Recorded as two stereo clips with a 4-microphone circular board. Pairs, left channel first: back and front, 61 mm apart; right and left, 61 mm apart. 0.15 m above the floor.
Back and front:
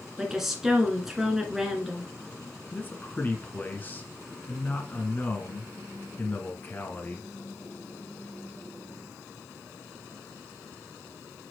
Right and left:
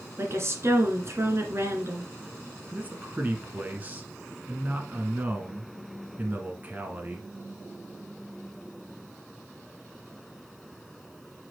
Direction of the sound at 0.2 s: 80° left.